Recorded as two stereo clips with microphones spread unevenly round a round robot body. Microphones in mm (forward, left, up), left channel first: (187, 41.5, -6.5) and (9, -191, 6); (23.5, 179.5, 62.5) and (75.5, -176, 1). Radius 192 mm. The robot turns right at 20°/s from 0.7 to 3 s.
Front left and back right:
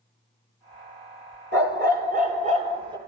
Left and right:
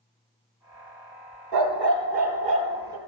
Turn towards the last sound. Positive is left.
turn(degrees=-55)